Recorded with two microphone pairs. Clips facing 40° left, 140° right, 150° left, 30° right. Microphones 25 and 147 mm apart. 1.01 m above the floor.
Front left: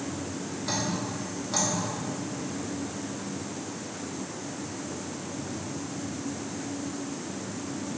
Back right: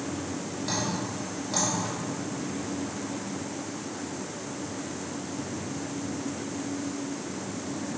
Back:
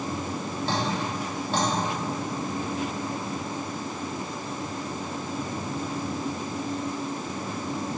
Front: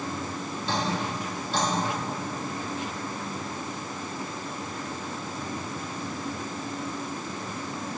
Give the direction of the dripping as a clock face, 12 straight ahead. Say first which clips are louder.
Even, even; 8 o'clock.